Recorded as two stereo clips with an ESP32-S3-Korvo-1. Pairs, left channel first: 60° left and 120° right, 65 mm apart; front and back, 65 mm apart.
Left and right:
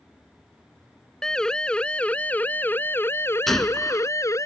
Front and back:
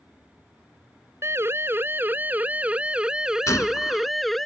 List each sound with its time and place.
1.2 s a siren: 140° left; by 4.5 s 85° left
3.5 s a gunshot: 25° right